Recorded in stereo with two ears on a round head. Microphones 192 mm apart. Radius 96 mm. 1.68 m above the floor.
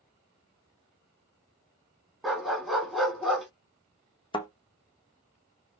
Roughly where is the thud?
Left.